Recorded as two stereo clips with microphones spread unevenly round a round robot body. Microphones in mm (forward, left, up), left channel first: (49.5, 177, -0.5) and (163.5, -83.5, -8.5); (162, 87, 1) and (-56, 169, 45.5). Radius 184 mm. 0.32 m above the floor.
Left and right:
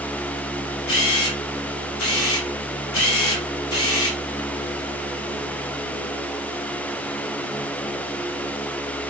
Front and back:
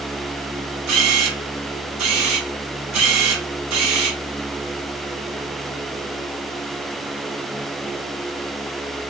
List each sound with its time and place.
0.9 s a camera shutter: 160° left, 1.9 m